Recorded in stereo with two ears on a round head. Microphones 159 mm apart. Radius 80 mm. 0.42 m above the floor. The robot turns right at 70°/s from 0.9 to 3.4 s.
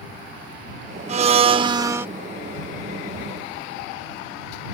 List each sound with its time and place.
1.1 s a blender: 85° right; by 2.1 s 20° right